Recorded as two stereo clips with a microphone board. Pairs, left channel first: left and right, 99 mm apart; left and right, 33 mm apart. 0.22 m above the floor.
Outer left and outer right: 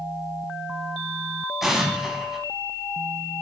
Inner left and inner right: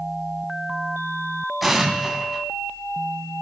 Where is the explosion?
Centre (ahead or behind), 2 m.